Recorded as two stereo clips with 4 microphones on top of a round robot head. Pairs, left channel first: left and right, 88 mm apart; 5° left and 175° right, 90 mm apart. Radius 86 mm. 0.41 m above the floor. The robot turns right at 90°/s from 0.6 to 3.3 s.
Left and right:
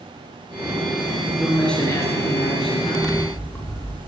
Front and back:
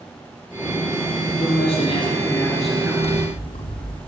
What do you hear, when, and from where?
1.4 s a man speaking: 20° right, 10 m; by 2.9 s 120° left, 10 m
3.0 s scissors: 5° left, 6.5 m; by 4.0 s 30° left, 6.5 m